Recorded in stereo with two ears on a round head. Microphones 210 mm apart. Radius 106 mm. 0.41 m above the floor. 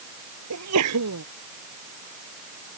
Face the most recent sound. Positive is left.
turn(degrees=-80)